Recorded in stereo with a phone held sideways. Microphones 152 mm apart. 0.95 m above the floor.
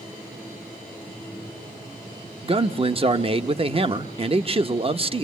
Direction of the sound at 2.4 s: 40° right (ahead or behind).